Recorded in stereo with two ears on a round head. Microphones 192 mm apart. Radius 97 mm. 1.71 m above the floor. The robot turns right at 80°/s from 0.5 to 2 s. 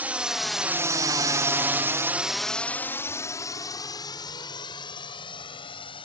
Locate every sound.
0.0 s a drone: 10° right (ahead or behind); by 6.1 s 25° left (ahead or behind)